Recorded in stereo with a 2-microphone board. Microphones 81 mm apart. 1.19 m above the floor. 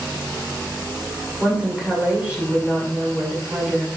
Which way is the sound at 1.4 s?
15° right (ahead or behind).